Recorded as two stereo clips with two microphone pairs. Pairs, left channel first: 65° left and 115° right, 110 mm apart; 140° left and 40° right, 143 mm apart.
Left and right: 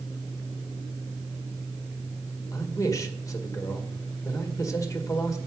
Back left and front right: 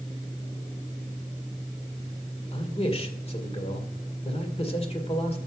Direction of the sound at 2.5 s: 110° left.